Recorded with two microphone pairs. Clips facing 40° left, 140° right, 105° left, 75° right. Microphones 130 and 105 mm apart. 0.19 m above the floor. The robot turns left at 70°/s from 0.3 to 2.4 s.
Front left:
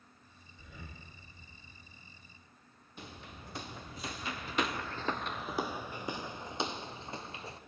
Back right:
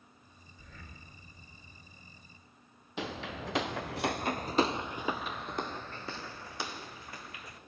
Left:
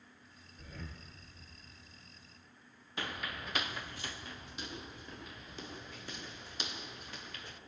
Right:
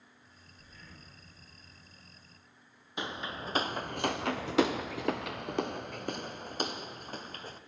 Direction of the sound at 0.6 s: 130° left.